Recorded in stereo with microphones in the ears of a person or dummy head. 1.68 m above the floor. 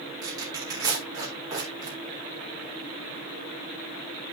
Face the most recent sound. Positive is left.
turn(degrees=-15)  # may be behind; listen again after turning